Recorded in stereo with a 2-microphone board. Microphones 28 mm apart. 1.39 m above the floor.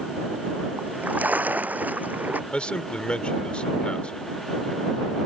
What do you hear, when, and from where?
0.8 s a splash: 65° right (ahead or behind)
2.5 s a man speaking: 35° left (ahead or behind)